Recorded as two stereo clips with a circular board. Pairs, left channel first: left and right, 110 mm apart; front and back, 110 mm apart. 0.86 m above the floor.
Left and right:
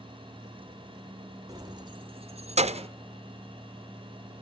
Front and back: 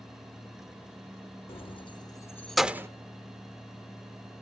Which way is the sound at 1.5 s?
35° right.